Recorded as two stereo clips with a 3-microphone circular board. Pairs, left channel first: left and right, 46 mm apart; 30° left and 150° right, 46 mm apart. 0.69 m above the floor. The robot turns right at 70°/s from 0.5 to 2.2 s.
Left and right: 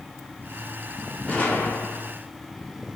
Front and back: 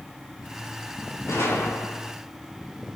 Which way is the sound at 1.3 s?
30° left.